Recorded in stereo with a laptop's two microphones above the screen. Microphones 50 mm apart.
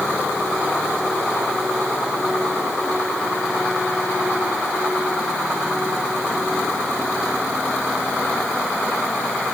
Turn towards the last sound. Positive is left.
No sound to turn to.